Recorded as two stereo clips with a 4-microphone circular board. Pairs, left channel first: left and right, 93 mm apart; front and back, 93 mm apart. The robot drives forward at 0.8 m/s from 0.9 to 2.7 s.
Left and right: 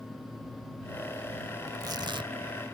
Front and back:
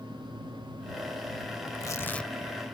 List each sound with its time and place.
1.7 s tearing paper: 40° right; by 2.3 s 90° right